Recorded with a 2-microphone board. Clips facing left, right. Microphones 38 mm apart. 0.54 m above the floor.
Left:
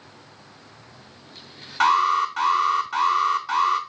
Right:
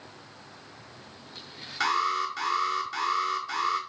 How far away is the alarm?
About 3 m.